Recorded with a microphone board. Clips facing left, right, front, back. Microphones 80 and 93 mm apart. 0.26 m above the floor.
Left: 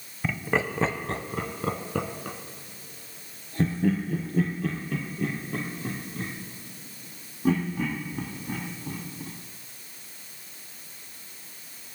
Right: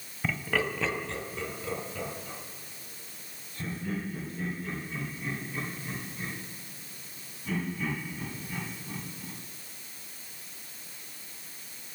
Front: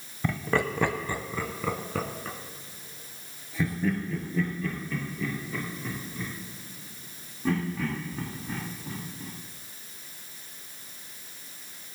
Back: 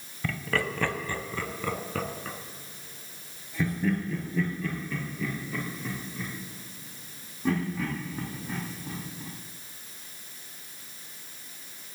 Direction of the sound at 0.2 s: 10° left.